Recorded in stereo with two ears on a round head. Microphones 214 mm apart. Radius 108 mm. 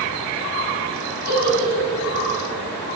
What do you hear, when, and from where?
1.3 s a giggle: 40° right (ahead or behind), 4 m